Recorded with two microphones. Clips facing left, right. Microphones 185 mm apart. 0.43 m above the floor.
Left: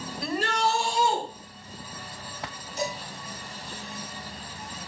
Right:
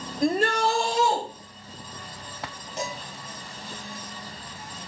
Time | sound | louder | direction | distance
0.2 | a shout | right 5 dB | 45° right (ahead or behind) | 1.2 m
2.8 | dishes clattering | left 2 dB | 75° right (ahead or behind) | 2.5 m